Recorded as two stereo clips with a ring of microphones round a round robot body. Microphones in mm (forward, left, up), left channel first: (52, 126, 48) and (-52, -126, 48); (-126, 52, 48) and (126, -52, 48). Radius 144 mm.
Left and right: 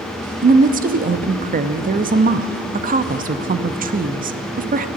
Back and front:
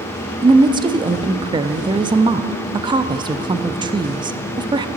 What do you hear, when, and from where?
0.4 s a woman speaking: 85° right, 0.6 m